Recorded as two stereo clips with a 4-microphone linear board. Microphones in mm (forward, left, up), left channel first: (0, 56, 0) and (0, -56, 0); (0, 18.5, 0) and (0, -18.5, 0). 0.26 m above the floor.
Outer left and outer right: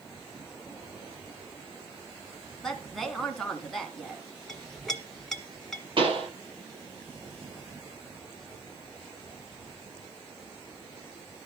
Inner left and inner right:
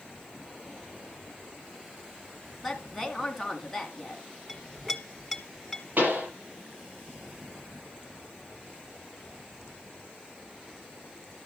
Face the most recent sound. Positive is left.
turn(degrees=-50)  # may be behind; listen again after turning